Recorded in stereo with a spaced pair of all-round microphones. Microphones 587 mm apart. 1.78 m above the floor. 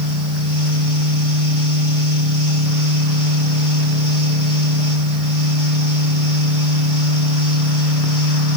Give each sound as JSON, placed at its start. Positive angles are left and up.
{"t": 0.0, "sound": "a fan", "side_deg": -40, "distance_m": 3.0}